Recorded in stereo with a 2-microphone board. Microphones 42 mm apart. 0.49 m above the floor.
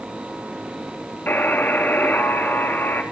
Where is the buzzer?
50° left (ahead or behind), 3.5 m.